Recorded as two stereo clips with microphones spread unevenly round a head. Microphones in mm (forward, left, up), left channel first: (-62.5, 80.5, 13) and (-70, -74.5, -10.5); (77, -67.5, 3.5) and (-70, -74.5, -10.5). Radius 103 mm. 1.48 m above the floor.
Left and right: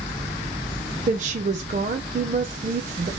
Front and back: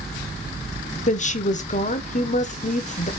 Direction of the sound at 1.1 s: 35° right.